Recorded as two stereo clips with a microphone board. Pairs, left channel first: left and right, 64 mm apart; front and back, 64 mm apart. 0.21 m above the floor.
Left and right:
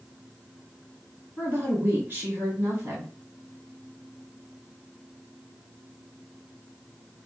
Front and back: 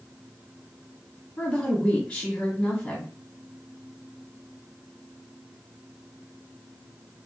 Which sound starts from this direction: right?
A woman speaking, at 1.4 s.